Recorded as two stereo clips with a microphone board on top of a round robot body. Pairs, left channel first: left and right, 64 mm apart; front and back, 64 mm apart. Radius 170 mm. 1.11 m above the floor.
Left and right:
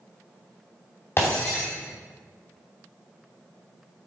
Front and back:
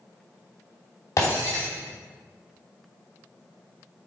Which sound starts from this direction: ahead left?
Breaking glass, at 1.2 s.